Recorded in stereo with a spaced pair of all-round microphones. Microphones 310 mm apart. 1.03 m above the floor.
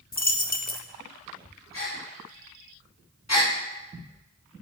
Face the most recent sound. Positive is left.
turn(degrees=55)  # may be behind; listen again after turning